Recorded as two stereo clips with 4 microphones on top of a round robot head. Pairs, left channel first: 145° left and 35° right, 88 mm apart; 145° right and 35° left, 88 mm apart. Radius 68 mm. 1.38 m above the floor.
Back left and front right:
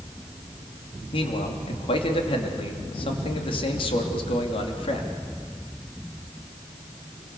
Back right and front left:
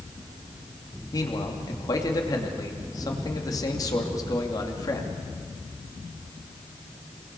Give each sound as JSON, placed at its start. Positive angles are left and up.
{"t": 1.1, "sound": "a man speaking", "azimuth_deg": 165, "distance_m": 3.0}